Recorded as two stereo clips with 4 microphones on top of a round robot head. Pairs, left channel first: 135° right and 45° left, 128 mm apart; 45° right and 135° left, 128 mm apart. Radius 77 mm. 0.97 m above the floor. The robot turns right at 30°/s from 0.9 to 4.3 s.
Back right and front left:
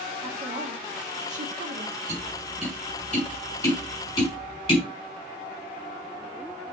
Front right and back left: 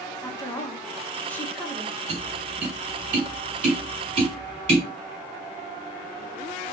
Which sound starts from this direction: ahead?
A woman speaking, at 0.2 s.